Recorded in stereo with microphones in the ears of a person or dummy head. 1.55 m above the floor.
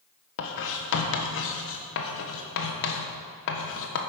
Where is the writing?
70° left (ahead or behind), 1.4 m.